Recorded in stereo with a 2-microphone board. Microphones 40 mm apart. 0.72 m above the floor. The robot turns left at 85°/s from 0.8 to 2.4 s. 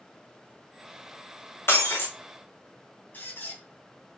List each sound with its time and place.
1.7 s breaking glass: 95° left, 3 m; by 2.1 s 60° left, 3 m
3.1 s a squeak: 45° left (ahead or behind), 3 m